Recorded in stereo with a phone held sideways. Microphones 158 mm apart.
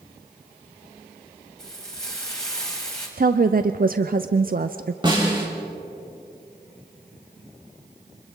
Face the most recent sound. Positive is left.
turn(degrees=-30)  # may be behind; listen again after turning